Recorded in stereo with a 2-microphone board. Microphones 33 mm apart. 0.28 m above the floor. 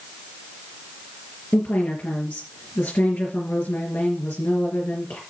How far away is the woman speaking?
About 4 m.